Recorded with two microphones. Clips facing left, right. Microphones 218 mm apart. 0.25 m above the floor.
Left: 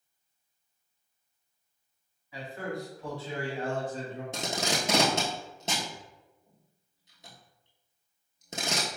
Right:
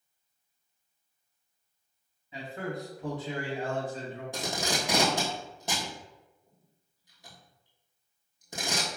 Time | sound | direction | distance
2.3 | a man speaking | 25° right (ahead or behind) | 1.5 m
4.3 | tape being pulled | 25° left (ahead or behind) | 0.9 m